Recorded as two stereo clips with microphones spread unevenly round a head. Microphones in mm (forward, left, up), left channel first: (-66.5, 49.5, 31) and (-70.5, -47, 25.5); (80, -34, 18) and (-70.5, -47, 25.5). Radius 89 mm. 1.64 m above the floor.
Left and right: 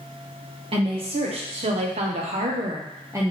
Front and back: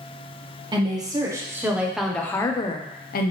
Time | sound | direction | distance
0.7 | a woman speaking | 110° right | 1.5 m